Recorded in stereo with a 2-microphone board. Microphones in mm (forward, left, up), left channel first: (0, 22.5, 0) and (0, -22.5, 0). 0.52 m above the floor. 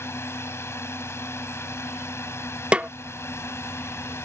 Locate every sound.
0.0 s a drone: 65° left (ahead or behind); by 4.2 s 70° left (ahead or behind)
2.7 s a snare drum: 25° right (ahead or behind)